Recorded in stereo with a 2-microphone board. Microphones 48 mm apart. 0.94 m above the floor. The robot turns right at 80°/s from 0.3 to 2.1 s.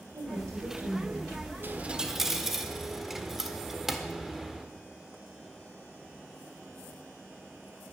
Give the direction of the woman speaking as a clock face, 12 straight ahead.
3 o'clock.